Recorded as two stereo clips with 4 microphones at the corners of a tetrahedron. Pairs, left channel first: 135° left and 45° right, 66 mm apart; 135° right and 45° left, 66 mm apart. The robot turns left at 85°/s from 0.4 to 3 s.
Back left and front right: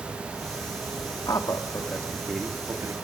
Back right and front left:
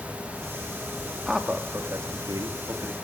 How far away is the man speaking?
About 2 m.